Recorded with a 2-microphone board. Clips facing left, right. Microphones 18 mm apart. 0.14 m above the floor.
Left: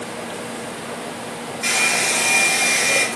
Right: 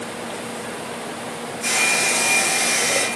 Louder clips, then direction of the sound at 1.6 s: Left 1 dB; 40° left (ahead or behind).